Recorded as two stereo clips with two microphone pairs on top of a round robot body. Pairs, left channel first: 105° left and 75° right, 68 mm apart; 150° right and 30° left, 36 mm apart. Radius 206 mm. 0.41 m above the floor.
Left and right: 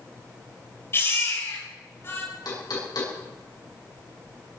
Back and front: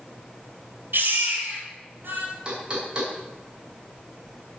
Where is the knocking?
90° left, 5 m.